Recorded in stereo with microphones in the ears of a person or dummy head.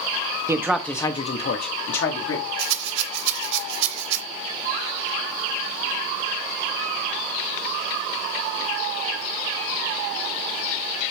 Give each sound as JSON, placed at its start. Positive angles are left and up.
{"t": 0.5, "sound": "a man speaking", "side_deg": -15, "distance_m": 0.6}
{"t": 2.6, "sound": "a rattle", "side_deg": -70, "distance_m": 0.7}